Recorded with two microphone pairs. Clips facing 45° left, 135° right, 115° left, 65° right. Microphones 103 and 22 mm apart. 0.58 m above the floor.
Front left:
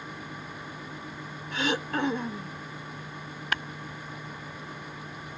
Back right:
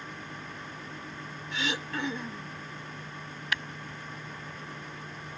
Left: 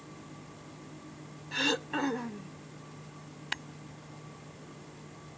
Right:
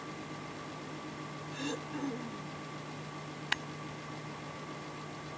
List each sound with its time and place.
1.5 s throat clearing: 90° left
3.5 s tapping: 15° left